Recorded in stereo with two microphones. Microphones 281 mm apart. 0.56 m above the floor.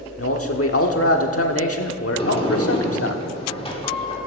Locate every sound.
0.2 s a man speaking: 55° left (ahead or behind), 1.2 m
2.2 s a sliding door: 20° left (ahead or behind), 1.7 m